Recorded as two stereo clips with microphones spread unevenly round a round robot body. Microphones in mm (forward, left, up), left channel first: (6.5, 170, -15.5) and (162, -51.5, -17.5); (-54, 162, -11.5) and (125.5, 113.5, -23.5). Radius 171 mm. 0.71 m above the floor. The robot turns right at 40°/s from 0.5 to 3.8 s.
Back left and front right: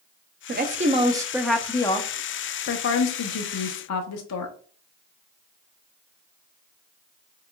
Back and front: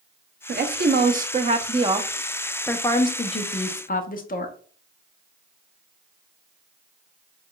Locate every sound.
0.5 s a woman speaking: 5° right, 0.7 m; by 4.5 s 125° left, 0.7 m